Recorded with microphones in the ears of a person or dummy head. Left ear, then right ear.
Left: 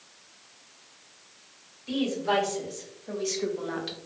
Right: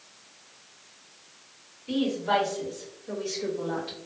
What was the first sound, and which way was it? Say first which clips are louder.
A woman speaking: right 1 dB; 75° left (ahead or behind).